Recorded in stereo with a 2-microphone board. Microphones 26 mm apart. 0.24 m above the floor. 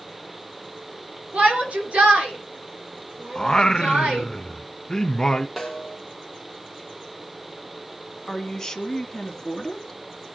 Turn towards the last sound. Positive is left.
turn(degrees=20)  # may be behind; listen again after turning